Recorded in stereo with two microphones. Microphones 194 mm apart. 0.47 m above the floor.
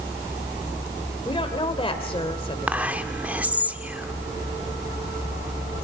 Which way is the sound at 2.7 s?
5° right (ahead or behind).